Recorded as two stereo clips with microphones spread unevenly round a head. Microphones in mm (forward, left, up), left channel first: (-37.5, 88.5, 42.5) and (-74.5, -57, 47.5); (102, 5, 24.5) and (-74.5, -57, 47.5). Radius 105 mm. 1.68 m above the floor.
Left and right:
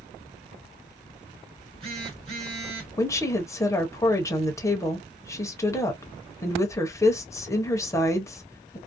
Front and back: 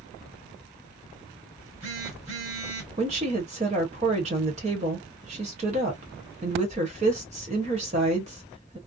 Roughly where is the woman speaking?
Behind left.